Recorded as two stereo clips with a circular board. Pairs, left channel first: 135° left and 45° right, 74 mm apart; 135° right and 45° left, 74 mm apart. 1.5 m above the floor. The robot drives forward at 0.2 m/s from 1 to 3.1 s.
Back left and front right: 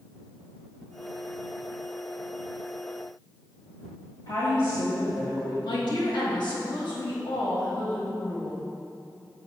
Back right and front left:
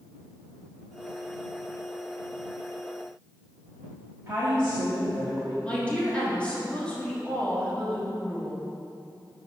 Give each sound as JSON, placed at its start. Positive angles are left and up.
{"t": 4.3, "sound": "a woman speaking", "azimuth_deg": 105, "distance_m": 1.8}
{"t": 5.6, "sound": "a woman speaking", "azimuth_deg": 150, "distance_m": 1.7}